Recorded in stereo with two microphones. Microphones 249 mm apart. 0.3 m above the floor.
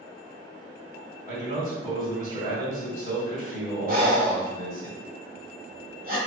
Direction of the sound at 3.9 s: 35° right (ahead or behind).